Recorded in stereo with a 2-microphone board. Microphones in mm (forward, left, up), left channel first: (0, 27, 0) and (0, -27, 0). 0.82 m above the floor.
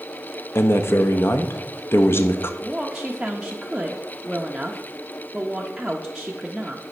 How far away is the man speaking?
About 0.7 m.